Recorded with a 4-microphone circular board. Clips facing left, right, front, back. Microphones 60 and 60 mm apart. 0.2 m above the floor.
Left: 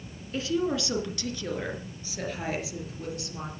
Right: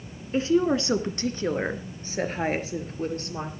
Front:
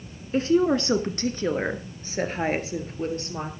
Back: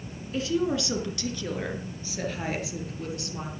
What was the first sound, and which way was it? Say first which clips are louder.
A woman speaking: right 6 dB, front 6 dB; 35° right.